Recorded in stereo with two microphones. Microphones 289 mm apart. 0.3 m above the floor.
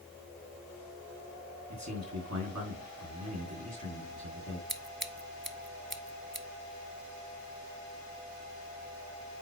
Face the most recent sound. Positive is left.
turn(degrees=-40)  # may be behind; listen again after turning